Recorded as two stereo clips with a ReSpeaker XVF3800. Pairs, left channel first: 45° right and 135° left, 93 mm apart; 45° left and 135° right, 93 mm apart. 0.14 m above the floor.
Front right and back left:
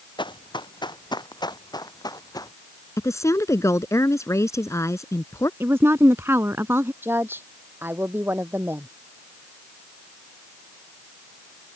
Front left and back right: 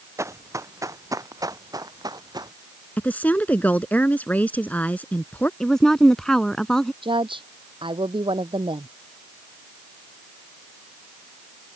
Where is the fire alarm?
No fire alarm in this recording.